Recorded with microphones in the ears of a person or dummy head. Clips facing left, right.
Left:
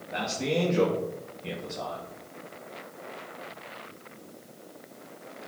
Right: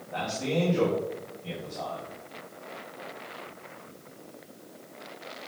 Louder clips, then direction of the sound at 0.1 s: Left 1 dB; 30° left (ahead or behind).